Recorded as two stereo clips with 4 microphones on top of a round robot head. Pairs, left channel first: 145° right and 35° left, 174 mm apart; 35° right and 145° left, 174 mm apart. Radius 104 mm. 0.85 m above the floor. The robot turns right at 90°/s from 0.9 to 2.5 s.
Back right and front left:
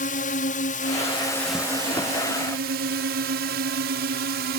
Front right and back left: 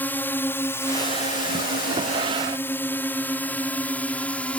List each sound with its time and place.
0.0 s a drone: 115° right; by 4.6 s 45° left